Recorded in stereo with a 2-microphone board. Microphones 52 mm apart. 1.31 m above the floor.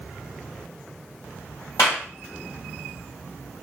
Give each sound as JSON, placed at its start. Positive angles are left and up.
{"t": 1.8, "sound": "a clap", "side_deg": 80, "distance_m": 1.8}